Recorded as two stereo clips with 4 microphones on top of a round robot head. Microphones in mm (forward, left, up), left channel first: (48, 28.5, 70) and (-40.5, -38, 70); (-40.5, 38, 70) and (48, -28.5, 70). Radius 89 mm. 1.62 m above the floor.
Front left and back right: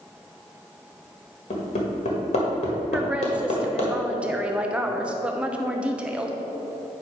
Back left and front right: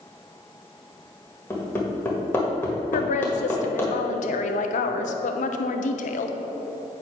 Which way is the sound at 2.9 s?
135° left.